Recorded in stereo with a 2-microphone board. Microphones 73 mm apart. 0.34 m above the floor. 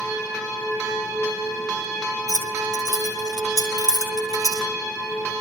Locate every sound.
2.3 s keys jangling: 80° right, 5 m; by 4.7 s 60° right (ahead or behind), 5.5 m